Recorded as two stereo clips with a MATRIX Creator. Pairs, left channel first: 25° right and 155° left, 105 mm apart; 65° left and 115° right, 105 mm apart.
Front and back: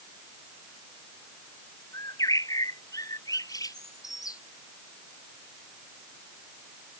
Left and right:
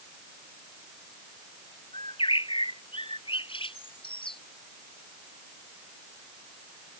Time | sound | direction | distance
1.9 | a bird | 35° left | ?